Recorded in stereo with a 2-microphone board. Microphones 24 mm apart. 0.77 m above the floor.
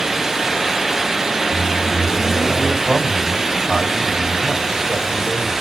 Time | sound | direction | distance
1.5 | a microwave | 55° right (ahead or behind) | 1.7 m
2.9 | a man speaking | 45° right (ahead or behind) | 1.9 m